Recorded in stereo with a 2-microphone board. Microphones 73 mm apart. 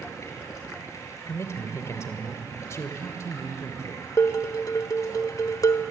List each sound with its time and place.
0.0 s running water: 45° left (ahead or behind), 7.5 m
1.2 s a man speaking: 40° left (ahead or behind), 3 m
4.2 s dishes clattering: 55° left (ahead or behind), 1.5 m